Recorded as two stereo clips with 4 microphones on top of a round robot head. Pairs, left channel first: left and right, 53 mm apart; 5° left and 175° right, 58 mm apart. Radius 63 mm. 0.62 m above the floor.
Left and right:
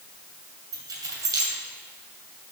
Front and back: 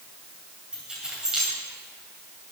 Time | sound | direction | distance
0.7 | keys jangling | 95° right | 2.5 m